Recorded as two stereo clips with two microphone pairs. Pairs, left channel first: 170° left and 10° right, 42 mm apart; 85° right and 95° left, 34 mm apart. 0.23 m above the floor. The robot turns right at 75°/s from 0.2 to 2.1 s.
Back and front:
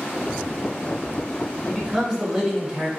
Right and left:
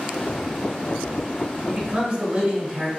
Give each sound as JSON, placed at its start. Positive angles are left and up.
{"t": 1.7, "sound": "a man speaking", "azimuth_deg": 15, "distance_m": 1.1}